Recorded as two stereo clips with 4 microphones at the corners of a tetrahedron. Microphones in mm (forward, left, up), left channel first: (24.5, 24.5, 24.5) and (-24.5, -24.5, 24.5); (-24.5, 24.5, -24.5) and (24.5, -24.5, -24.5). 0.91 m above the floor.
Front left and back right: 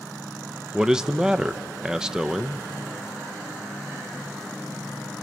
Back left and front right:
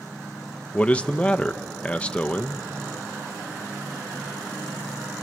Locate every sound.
0.7 s a man speaking: 160° left, 0.6 m